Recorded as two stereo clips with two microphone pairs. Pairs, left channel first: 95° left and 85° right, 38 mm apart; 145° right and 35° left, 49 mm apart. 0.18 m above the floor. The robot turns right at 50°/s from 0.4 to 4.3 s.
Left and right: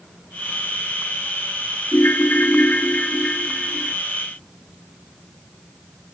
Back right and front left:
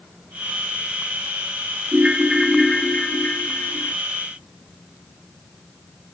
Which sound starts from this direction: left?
A ringtone, at 1.9 s.